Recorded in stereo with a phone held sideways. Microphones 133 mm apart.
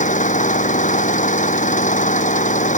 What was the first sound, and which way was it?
An engine running, 70° left (ahead or behind).